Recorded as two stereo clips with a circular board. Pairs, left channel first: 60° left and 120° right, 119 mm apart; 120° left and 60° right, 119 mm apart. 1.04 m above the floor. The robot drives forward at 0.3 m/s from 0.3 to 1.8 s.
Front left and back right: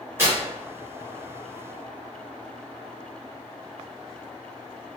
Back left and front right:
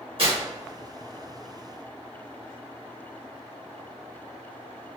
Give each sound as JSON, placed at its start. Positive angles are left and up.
{"t": 0.2, "sound": "tearing paper", "azimuth_deg": -55, "distance_m": 1.2}